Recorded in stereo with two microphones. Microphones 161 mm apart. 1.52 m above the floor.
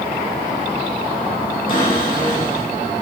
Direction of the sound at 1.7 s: 60° left (ahead or behind).